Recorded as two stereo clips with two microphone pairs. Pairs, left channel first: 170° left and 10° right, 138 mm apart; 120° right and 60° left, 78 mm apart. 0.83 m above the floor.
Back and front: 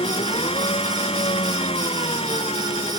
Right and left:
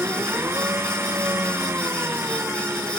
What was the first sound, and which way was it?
An engine running, 120° left.